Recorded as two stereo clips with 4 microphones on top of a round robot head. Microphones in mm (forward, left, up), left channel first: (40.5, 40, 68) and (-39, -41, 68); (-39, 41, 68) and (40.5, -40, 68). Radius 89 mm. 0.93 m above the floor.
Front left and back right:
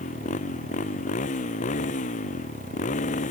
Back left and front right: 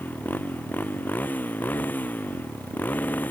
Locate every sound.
0.0 s a motorcycle: 60° left